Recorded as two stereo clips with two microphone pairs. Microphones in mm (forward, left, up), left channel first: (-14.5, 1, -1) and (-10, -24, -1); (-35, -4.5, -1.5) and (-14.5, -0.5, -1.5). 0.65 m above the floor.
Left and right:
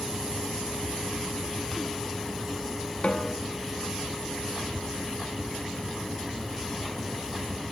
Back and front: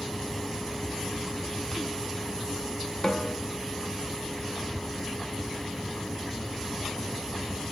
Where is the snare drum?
145° left, 1.8 m.